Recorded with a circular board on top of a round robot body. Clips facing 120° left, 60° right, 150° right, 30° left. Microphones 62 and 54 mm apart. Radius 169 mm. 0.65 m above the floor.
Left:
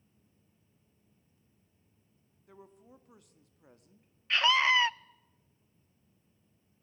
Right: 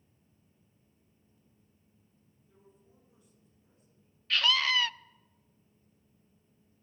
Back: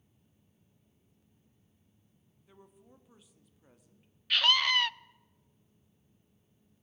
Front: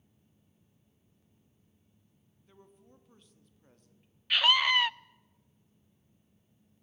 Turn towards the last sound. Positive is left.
turn(degrees=95)